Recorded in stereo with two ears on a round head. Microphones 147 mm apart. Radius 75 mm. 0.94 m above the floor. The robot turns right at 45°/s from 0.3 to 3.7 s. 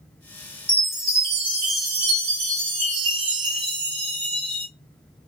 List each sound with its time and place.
0.7 s a chime: 170° right, 1.3 m; by 4.7 s 35° right, 1.3 m